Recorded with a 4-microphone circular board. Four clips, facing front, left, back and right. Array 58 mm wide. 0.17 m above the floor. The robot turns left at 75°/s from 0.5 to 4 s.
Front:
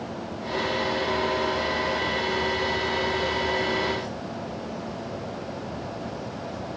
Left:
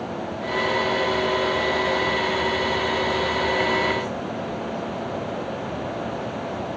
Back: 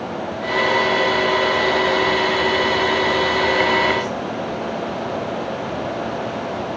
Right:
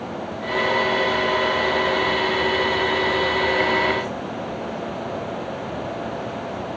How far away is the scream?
No scream in this recording.